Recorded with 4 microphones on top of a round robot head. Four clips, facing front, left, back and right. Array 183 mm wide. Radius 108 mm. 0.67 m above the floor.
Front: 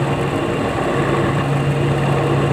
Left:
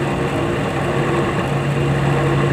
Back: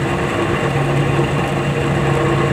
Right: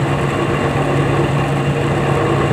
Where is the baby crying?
I don't hear a baby crying.